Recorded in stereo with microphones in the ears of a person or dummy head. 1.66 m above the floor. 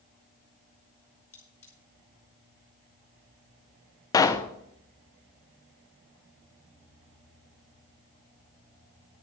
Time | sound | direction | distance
1.3 | cutlery clinking | 10° left (ahead or behind) | 0.8 m
4.1 | a pop | 20° left (ahead or behind) | 0.7 m